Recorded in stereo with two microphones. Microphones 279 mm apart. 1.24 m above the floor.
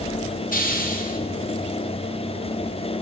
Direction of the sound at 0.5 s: 30° left (ahead or behind).